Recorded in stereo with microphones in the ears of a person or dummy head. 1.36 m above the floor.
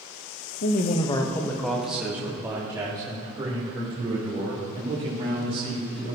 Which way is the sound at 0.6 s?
50° left (ahead or behind).